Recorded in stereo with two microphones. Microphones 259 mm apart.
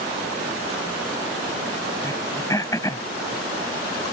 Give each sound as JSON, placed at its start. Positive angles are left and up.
{"t": 2.0, "sound": "throat clearing", "side_deg": 10}